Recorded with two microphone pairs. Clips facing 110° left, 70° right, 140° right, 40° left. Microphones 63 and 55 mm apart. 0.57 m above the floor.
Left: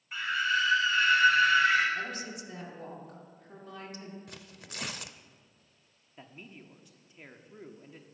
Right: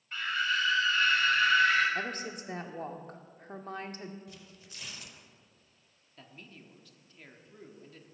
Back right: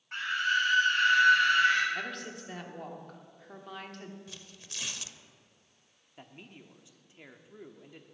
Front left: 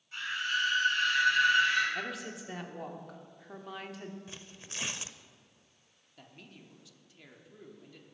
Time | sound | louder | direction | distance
0.1 | a scream | left 2 dB, back right 4 dB | 165° right | 4 m
1.9 | a woman speaking | right 1 dB, even | 40° right | 1.2 m
4.3 | tearing paper | left 3 dB, front left 2 dB | 95° left | 0.5 m
6.2 | a man speaking | left 3 dB, back right 3 dB | 170° left | 1.0 m